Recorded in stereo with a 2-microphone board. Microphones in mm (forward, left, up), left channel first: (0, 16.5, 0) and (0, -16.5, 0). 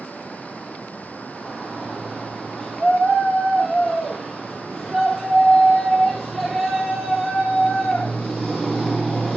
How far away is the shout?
About 3.5 m.